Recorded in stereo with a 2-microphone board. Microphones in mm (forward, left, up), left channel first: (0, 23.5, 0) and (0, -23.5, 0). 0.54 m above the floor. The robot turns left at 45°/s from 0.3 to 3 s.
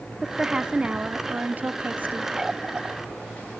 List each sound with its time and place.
0.2 s a woman speaking: 20° right, 0.9 m; by 2.3 s 105° right, 0.9 m
2.4 s a running tap: 10° right (ahead or behind), 0.9 m; by 3.0 s 30° right (ahead or behind), 0.9 m